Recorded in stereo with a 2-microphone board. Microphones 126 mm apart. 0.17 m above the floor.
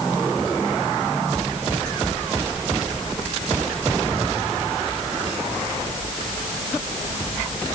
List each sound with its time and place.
Only background noise.